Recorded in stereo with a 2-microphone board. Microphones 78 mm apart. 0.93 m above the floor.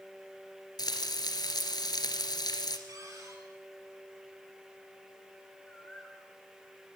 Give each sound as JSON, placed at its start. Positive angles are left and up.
{"t": 0.8, "sound": "frying", "side_deg": 65, "distance_m": 2.5}
{"t": 2.9, "sound": "a cupboard door", "side_deg": -45, "distance_m": 6.5}
{"t": 5.7, "sound": "a bird", "side_deg": 10, "distance_m": 6.5}